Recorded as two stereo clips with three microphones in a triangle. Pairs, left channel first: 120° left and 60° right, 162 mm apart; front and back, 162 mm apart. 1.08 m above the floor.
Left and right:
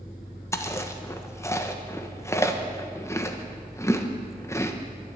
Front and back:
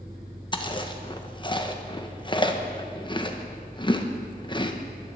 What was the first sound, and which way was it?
Chewing, 50° left.